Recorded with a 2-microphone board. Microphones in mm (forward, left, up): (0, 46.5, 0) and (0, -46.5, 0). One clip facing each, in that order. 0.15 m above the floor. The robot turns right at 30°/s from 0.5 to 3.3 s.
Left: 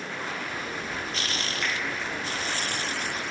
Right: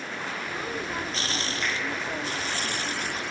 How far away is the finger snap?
About 0.9 m.